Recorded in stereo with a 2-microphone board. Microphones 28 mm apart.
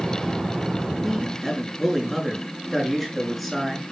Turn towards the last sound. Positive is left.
turn(degrees=5)  # may be behind; listen again after turning